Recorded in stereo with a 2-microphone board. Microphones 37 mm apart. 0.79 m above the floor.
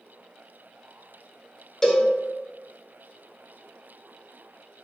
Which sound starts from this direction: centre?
A cowbell, at 1.8 s.